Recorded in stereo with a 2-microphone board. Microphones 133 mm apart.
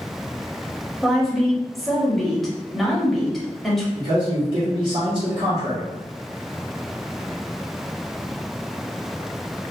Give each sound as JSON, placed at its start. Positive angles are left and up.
{"t": 1.0, "sound": "a woman speaking", "side_deg": 0, "distance_m": 1.1}
{"t": 4.0, "sound": "a man speaking", "side_deg": -50, "distance_m": 1.2}